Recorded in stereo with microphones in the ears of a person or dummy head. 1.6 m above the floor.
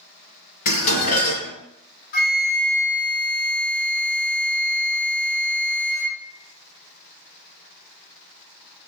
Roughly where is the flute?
Left.